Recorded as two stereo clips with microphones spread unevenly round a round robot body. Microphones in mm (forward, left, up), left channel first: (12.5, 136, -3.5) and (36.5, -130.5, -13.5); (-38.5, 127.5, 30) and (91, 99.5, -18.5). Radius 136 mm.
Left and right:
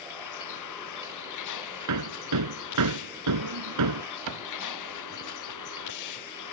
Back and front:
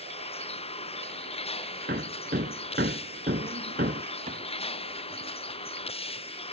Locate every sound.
0.0 s a vehicle: 125° left
1.9 s hammering: 60° right
4.3 s a cupboard door: 65° right